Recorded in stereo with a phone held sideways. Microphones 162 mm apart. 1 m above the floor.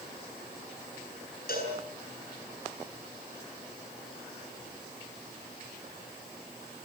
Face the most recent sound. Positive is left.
turn(degrees=65)  # may be behind; listen again after turning